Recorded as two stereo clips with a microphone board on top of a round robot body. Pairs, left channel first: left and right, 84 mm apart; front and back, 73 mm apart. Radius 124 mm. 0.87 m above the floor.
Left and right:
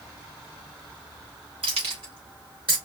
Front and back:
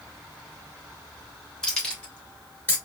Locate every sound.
1.6 s keys jangling: 80° right, 2.5 m; by 2.8 s 60° right, 3.5 m